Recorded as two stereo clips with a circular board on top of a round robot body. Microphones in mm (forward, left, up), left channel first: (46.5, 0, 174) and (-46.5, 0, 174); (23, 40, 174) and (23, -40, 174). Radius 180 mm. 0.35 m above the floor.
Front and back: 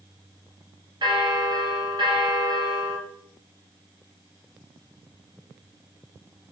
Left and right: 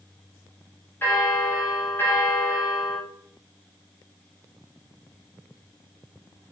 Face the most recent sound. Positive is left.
turn(degrees=155)